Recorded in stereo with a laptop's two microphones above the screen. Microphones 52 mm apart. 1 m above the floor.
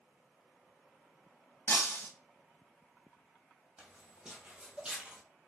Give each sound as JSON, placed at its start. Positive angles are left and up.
{"t": 1.7, "sound": "breaking glass", "side_deg": 50, "distance_m": 1.2}
{"t": 3.8, "sound": "footsteps", "side_deg": -15, "distance_m": 2.0}